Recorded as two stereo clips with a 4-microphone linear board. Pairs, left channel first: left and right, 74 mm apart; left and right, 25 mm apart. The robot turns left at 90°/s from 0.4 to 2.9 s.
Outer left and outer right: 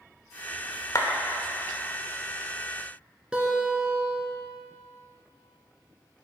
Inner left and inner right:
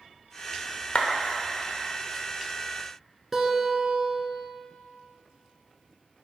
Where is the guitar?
10° right (ahead or behind), 1.0 m.